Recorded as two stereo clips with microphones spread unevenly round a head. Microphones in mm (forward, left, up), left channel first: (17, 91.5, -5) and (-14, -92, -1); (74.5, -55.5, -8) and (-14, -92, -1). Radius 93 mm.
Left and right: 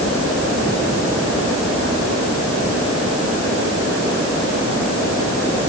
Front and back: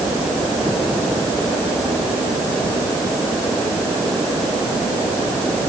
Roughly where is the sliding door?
No sliding door in this recording.